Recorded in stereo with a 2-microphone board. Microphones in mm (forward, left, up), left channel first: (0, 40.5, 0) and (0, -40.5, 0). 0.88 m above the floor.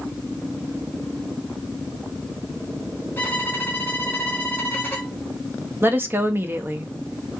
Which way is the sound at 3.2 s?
25° left (ahead or behind).